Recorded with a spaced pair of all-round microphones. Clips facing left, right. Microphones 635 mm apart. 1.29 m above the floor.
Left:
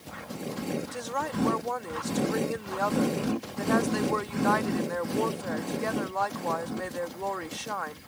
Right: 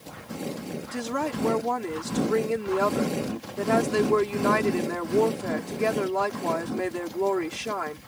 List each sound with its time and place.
0.9 s a woman speaking: 80° right